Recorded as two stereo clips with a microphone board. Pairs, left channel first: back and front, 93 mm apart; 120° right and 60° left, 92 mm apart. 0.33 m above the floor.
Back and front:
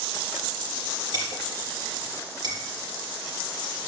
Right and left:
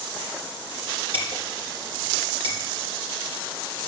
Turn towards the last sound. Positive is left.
turn(degrees=40)